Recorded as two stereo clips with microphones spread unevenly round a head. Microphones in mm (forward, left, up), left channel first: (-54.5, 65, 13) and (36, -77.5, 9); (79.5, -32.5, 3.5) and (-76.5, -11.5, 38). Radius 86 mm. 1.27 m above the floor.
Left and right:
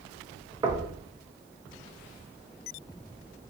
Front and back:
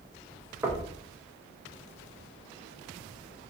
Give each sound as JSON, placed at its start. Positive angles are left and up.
{"t": 0.6, "sound": "knocking", "azimuth_deg": -125, "distance_m": 0.5}